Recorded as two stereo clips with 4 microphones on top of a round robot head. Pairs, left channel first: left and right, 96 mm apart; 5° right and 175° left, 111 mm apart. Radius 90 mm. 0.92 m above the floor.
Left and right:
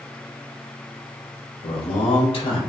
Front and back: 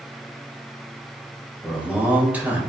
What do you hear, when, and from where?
1.6 s a man speaking: 100° left, 4.5 m